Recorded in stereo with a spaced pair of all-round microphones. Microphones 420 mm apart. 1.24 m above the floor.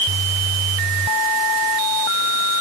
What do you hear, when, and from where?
Only background noise.